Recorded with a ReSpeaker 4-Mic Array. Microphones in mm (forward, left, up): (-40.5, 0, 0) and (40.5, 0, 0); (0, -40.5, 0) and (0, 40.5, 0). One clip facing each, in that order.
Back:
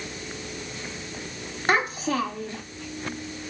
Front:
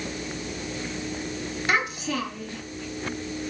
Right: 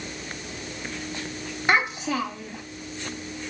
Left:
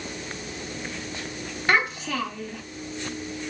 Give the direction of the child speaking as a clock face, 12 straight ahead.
5 o'clock.